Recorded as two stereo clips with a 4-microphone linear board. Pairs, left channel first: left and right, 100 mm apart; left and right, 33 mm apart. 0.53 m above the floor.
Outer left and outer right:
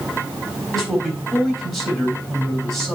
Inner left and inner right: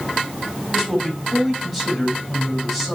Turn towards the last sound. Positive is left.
turn(degrees=5)  # may be behind; listen again after turning